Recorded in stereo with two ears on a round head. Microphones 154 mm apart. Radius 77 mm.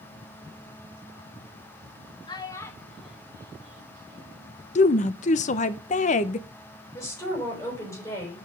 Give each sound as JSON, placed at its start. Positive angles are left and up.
{"t": 2.3, "sound": "a child speaking", "side_deg": 25, "distance_m": 1.9}
{"t": 4.8, "sound": "a woman speaking", "side_deg": 45, "distance_m": 0.8}
{"t": 7.0, "sound": "a woman speaking", "side_deg": 15, "distance_m": 5.5}